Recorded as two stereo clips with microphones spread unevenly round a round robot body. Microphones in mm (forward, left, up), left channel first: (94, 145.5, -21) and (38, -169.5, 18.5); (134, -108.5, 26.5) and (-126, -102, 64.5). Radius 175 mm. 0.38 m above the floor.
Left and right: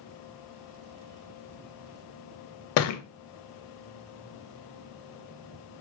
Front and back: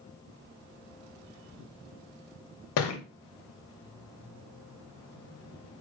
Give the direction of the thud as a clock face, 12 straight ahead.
11 o'clock.